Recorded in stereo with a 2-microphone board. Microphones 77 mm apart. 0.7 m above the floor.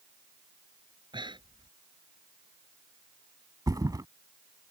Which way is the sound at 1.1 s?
85° right.